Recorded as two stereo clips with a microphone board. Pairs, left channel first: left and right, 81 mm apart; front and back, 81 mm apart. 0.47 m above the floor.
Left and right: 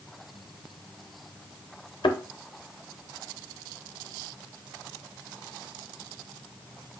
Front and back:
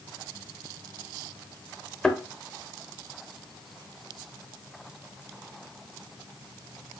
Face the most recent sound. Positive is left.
turn(degrees=80)